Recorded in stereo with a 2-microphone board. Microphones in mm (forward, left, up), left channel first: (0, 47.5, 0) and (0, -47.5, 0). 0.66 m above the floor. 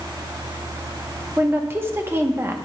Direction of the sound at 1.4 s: 25° right (ahead or behind).